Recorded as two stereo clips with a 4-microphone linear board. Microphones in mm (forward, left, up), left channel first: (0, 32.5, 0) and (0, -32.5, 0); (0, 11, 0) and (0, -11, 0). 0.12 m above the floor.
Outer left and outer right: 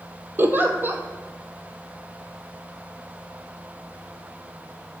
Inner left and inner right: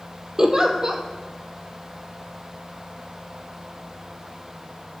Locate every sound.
0.4 s a giggle: 35° right (ahead or behind), 0.7 m